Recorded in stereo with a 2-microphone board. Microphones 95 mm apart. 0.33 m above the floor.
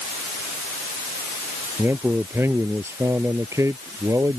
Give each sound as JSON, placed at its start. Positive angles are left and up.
{"t": 1.8, "sound": "a man speaking", "side_deg": -20}